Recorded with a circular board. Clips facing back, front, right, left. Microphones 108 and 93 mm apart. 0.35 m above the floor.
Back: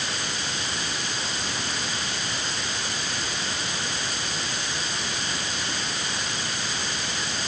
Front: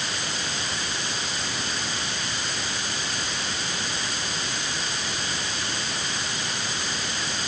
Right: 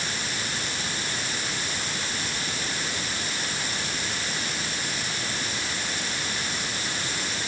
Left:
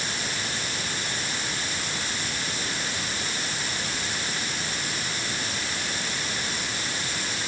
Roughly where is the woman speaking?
I don't hear a woman speaking.